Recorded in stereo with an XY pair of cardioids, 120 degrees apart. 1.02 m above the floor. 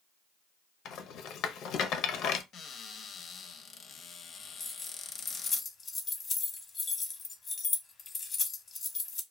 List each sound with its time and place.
0.8 s a rattle: 65° left, 0.5 m
2.5 s a cupboard door: 50° left, 0.6 m
4.6 s keys jangling: 35° left, 0.8 m